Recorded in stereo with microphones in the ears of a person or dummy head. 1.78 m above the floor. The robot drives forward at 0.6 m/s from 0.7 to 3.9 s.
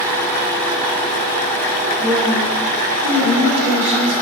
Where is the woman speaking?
65° right (ahead or behind), 4 m; by 4.1 s 80° right, 3.5 m.